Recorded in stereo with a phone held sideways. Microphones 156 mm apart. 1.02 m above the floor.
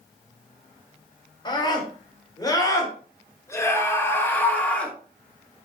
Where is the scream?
30° left (ahead or behind), 4 m; by 5.0 s 5° left (ahead or behind), 2.5 m.